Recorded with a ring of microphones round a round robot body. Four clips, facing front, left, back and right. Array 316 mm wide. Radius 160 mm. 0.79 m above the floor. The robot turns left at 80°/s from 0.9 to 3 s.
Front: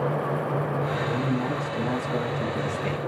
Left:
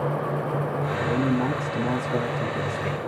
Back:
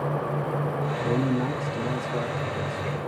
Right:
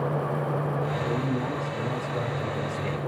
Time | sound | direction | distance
1.0 | a man speaking | 150° left | 1.6 m